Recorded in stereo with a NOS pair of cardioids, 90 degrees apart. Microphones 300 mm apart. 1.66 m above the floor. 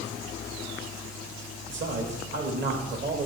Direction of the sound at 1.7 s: 40° right.